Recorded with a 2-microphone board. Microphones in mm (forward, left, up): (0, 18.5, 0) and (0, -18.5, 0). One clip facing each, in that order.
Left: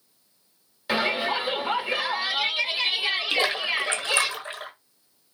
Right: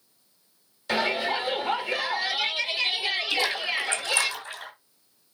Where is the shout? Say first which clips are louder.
Left 1 dB; 15° left (ahead or behind), 1.2 m.